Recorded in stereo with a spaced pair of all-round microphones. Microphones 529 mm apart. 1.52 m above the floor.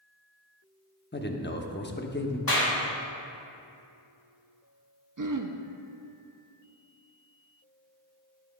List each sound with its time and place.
1.1 s a man speaking: 20° left (ahead or behind), 0.7 m
2.5 s a clap: 40° left (ahead or behind), 1.6 m
5.2 s throat clearing: 40° right (ahead or behind), 0.5 m